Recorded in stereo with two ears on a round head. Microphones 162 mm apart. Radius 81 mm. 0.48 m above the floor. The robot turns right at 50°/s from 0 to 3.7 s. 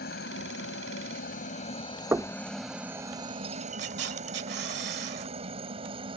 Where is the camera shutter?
65° right (ahead or behind).